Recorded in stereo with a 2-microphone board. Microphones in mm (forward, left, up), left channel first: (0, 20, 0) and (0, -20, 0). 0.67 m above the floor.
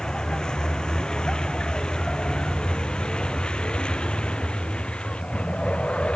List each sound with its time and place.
0.0 s a vehicle: 20° left (ahead or behind); by 6.2 s 30° left (ahead or behind)